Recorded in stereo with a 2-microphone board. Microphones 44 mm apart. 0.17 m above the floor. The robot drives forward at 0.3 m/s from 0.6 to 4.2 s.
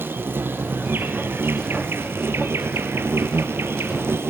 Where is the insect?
60° right (ahead or behind), 2.0 m; by 4.3 s 75° right (ahead or behind), 1.7 m.